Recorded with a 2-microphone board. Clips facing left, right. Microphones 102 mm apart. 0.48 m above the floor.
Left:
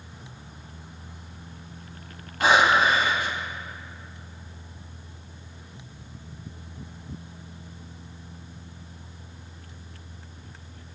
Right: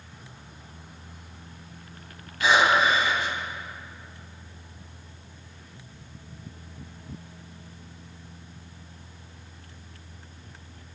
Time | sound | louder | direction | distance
2.4 | breathing | left 1 dB | 55° left (ahead or behind) | 2.0 m